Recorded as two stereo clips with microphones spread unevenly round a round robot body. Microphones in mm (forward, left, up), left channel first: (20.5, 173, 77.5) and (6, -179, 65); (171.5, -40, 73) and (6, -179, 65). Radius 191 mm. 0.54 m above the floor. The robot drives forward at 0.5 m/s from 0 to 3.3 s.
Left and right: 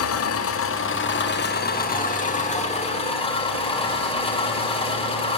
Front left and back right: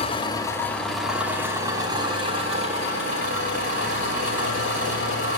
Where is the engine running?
85° left, 0.9 m; by 5.4 s 160° left, 1.8 m.